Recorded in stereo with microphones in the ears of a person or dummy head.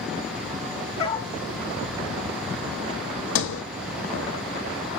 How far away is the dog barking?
About 3 m.